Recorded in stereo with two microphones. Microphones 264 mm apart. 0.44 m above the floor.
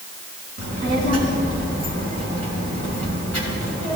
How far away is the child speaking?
About 4 m.